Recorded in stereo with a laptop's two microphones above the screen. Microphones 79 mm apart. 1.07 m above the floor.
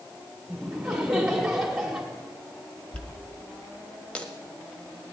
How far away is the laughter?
About 2 m.